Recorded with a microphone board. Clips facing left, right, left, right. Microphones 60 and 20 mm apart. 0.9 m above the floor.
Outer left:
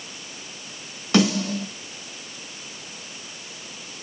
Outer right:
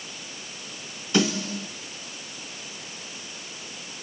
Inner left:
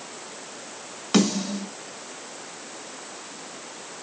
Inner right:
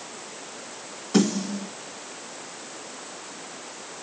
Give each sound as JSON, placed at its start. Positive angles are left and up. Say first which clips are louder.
{"t": 1.1, "sound": "a snare drum", "louder": "outer left 4 dB, inner left 1 dB", "side_deg": 80, "distance_m": 2.0}